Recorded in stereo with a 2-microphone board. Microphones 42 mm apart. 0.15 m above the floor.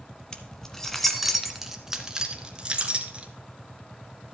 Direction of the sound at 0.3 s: 20° left (ahead or behind).